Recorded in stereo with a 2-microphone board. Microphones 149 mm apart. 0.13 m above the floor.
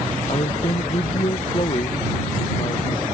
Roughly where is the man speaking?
Left.